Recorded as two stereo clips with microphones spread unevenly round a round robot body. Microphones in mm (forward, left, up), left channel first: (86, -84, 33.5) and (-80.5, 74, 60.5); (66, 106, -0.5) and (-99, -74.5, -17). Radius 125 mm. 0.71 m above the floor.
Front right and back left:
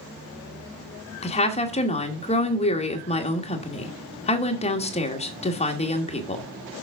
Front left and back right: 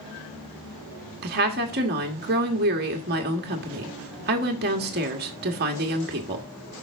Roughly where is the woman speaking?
Right.